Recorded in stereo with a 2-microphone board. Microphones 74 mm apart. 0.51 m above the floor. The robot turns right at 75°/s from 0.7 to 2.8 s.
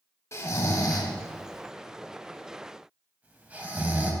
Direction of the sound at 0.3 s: 40° left (ahead or behind).